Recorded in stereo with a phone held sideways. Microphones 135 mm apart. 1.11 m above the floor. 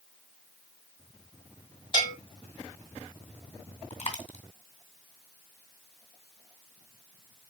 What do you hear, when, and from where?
1.9 s a bell: 40° left (ahead or behind), 3 m
3.9 s a dropped coin: 50° left (ahead or behind), 2.0 m